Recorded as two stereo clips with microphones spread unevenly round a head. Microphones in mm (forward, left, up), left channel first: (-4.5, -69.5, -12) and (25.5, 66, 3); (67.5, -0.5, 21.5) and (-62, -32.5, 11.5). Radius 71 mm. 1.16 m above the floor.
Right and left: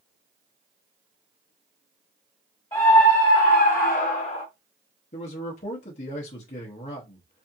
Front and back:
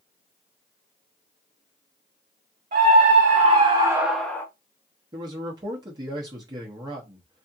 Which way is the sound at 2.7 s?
165° right.